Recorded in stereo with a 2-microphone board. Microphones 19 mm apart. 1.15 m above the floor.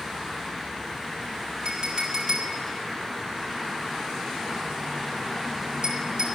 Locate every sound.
1.6 s a clink: 55° right (ahead or behind), 1.7 m